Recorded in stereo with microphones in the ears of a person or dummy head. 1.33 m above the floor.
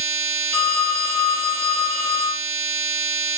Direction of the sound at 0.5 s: 5° left (ahead or behind).